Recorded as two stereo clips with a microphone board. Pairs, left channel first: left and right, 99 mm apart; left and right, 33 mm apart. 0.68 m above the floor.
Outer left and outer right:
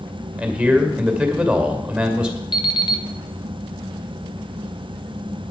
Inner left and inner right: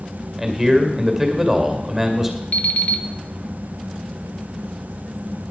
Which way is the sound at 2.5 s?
55° left (ahead or behind).